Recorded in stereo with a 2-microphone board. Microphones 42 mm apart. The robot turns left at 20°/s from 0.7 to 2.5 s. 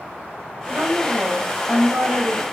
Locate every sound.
0.7 s a woman speaking: 40° right, 5.5 m; by 2.4 s 75° right, 5.5 m